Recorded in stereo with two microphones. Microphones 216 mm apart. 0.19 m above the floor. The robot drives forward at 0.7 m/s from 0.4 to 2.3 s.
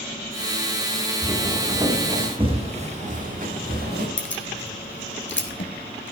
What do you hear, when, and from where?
1.2 s footsteps: 10° right (ahead or behind), 3.5 m; by 4.1 s 50° right (ahead or behind), 4 m
4.2 s keys jangling: 65° left (ahead or behind), 1.9 m